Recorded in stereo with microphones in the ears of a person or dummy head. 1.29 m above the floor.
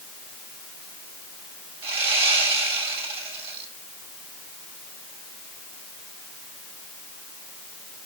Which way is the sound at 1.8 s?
35° right (ahead or behind).